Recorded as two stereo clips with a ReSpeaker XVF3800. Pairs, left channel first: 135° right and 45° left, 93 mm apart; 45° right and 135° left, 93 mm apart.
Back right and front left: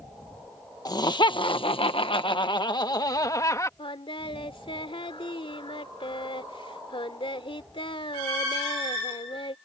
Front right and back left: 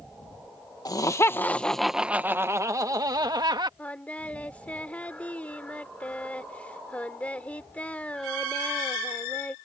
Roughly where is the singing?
Behind right.